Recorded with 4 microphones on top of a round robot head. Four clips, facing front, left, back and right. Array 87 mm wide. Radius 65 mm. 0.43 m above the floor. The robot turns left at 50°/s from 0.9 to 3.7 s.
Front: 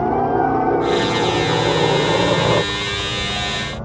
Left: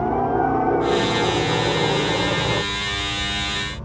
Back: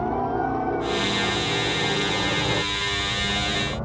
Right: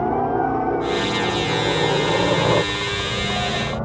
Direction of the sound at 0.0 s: 15° right.